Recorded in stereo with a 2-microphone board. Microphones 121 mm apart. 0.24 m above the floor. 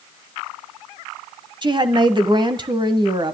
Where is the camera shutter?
I don't hear a camera shutter.